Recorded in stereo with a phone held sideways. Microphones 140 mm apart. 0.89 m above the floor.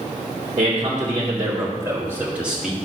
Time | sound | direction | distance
0.6 | a man speaking | 35° right (ahead or behind) | 3 m